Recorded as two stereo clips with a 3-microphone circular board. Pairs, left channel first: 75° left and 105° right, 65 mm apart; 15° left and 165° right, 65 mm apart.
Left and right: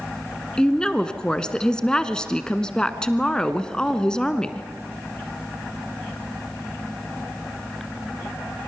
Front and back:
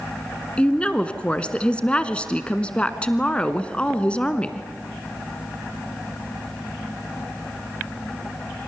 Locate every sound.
0.6 s a woman speaking: 30° left, 1.0 m